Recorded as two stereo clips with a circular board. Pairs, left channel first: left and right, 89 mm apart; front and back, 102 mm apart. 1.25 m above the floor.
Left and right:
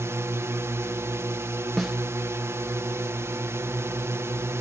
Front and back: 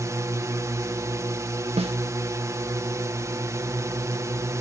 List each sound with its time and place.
0.0 s a drone: 135° right
1.8 s a snare drum: 175° right